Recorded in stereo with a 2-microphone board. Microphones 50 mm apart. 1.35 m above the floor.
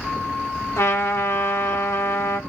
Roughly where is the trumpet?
Left.